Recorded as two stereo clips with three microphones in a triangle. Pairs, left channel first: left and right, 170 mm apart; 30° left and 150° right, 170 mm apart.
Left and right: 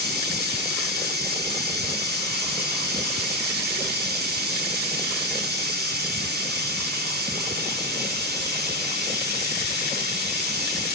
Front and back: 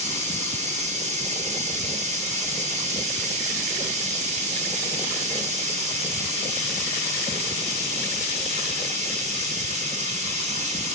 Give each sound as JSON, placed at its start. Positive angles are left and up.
{"t": 0.0, "sound": "running water", "azimuth_deg": -105, "distance_m": 6.0}